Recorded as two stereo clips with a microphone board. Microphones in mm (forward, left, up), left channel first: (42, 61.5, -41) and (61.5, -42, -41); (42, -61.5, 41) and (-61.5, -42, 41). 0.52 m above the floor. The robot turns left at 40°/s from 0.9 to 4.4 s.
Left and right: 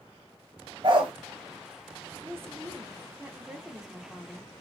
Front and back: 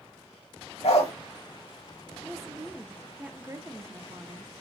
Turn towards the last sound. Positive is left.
turn(degrees=180)